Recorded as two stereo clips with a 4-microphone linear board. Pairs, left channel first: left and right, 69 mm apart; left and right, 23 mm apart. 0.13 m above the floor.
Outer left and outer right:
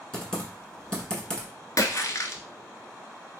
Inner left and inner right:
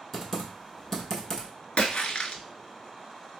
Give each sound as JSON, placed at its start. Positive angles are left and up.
{"t": 0.1, "sound": "typing on a keyboard", "side_deg": 10, "distance_m": 1.1}
{"t": 1.8, "sound": "a splash", "side_deg": 55, "distance_m": 0.5}